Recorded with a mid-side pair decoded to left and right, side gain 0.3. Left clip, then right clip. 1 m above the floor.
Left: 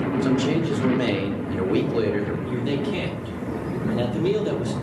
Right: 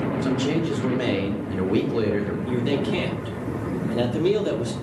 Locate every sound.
0.2 s a man speaking: 15° left, 1.8 m
2.5 s a man speaking: 25° right, 2 m